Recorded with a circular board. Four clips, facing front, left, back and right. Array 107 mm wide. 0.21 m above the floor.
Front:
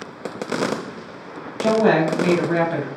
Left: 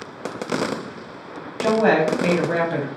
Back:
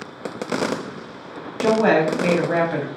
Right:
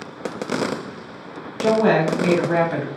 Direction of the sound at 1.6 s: 135° left.